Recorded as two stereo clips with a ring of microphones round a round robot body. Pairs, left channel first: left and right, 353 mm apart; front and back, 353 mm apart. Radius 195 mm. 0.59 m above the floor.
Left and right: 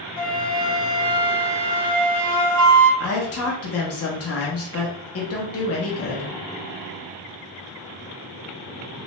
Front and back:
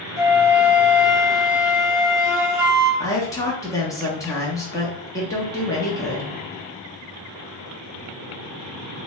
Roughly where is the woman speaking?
Left.